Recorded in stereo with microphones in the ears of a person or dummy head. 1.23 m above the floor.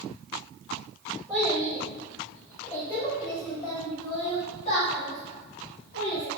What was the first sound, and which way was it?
A child speaking, 15° right (ahead or behind).